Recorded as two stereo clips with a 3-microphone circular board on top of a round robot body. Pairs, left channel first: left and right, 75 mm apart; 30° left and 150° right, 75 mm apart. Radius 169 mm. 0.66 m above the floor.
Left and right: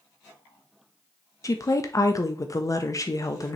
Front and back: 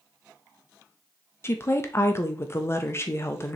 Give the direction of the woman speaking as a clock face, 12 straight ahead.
10 o'clock.